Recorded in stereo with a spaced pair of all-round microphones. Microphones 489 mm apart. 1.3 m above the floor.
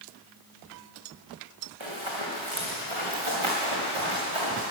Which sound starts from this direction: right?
Running footsteps, at 1.8 s.